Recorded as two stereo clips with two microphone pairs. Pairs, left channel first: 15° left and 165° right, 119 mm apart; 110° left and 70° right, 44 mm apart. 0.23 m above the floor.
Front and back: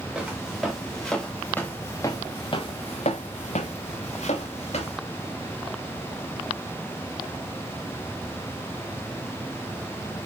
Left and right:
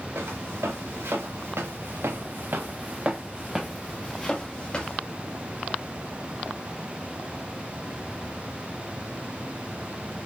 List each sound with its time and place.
0.1 s footsteps: 80° right, 1.9 m; by 5.0 s 45° left, 1.6 m